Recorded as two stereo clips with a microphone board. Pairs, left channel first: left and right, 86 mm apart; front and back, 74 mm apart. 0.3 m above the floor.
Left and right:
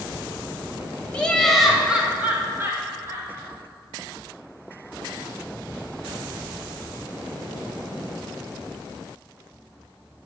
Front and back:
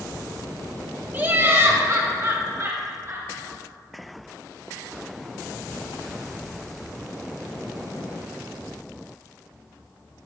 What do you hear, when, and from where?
1.1 s laughter: 155° left, 1.3 m; by 3.3 s 140° right, 2.5 m